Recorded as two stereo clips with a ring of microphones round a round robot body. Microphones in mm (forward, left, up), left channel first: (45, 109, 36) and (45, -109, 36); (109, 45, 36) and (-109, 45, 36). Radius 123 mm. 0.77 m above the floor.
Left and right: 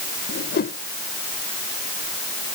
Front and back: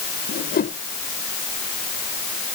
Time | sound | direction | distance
0.3 | a whoosh | 50° left | ?